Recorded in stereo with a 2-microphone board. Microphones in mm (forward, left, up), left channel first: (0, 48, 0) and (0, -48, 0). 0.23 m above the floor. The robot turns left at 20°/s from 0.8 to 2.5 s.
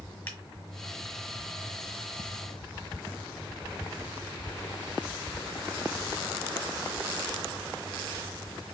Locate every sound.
0.3 s a finger snap: 20° left (ahead or behind), 1.6 m